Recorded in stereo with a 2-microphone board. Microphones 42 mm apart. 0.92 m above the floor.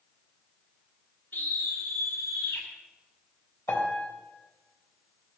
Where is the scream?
55° left (ahead or behind), 1.9 m; by 2.7 s 65° left (ahead or behind), 3 m.